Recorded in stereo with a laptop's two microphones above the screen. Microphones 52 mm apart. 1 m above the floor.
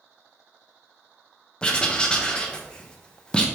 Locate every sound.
1.6 s writing: 15° left (ahead or behind), 0.5 m